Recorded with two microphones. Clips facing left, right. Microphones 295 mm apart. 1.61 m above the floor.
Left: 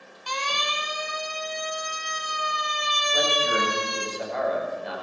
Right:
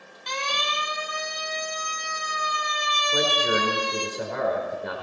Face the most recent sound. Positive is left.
turn(degrees=-65)  # may be behind; listen again after turning